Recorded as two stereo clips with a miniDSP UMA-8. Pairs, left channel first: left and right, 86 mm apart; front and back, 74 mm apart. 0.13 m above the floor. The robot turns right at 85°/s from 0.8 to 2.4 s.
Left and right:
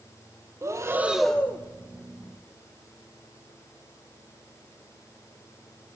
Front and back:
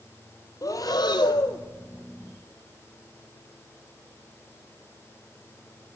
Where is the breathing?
35° right, 0.6 m; by 1.6 s 35° left, 0.6 m.